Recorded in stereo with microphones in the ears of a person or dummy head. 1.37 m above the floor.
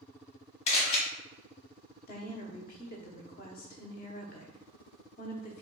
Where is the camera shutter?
40° left (ahead or behind), 1.1 m.